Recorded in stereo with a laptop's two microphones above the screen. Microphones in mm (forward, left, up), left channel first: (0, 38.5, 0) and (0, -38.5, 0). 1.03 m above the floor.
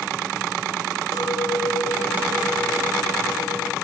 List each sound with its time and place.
1.1 s a clink: 65° left (ahead or behind), 1.1 m